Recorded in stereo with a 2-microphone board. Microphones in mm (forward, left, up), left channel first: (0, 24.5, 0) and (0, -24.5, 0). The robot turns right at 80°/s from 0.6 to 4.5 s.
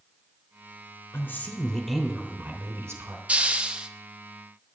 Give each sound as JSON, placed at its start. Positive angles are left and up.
{"t": 1.1, "sound": "a woman speaking", "azimuth_deg": 120, "distance_m": 3.0}
{"t": 3.3, "sound": "a hiss", "side_deg": -25, "distance_m": 0.8}